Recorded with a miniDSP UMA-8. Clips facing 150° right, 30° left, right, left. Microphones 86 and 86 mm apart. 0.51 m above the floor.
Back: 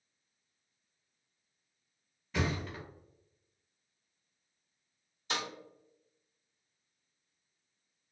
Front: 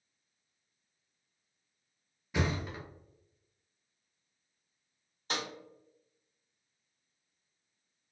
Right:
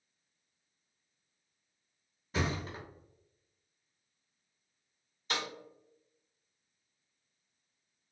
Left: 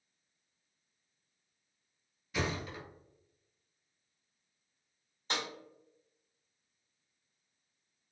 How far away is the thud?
About 0.9 m.